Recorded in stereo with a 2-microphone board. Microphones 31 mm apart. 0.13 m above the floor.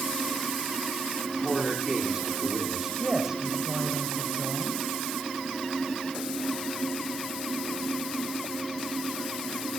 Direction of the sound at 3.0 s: 15° right (ahead or behind).